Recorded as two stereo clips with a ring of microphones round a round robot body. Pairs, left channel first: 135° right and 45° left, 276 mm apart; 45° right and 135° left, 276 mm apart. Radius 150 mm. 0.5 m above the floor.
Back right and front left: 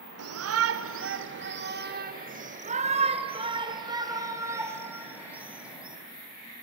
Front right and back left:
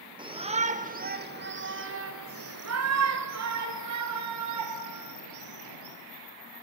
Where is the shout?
65° left, 2 m; by 6.0 s 130° left, 4.5 m.